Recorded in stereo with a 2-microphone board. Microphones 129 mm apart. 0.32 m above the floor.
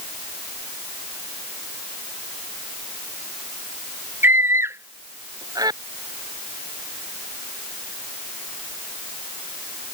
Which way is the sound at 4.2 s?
15° right (ahead or behind).